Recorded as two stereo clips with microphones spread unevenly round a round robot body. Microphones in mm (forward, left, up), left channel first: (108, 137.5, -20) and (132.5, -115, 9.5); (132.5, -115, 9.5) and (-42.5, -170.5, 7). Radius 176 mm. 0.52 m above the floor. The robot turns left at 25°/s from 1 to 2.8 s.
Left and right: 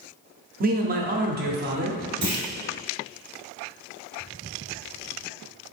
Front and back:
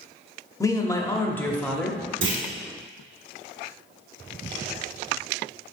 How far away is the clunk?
About 1.1 m.